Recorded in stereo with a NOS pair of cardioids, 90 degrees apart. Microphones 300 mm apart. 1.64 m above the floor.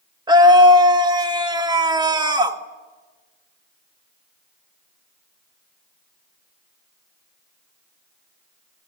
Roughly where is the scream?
Ahead.